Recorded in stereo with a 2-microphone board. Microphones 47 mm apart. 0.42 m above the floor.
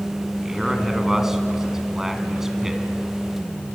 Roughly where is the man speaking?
Centre.